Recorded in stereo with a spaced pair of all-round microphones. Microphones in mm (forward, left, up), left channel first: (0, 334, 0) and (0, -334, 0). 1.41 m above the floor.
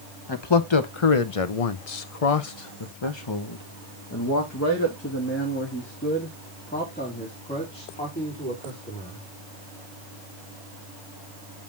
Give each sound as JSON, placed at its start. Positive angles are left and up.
{"t": 0.3, "sound": "a man speaking", "side_deg": 40, "distance_m": 1.1}